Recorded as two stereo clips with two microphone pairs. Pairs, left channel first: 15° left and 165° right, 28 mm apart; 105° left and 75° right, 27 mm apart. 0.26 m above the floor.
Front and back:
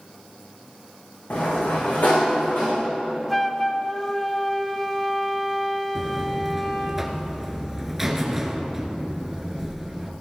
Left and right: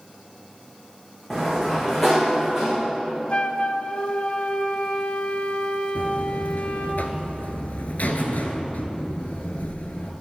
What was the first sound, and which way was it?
A sliding door, 15° left.